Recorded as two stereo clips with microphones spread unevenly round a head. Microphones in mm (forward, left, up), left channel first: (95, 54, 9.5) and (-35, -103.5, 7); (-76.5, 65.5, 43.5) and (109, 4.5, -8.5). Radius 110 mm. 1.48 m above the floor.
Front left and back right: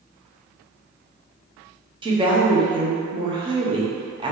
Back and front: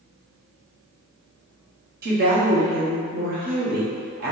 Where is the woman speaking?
60° right, 1.2 m.